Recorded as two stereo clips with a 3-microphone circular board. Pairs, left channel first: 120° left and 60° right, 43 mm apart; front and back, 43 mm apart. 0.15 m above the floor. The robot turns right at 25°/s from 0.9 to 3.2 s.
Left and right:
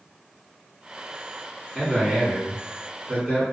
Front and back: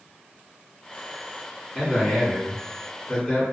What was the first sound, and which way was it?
A man speaking, 105° right.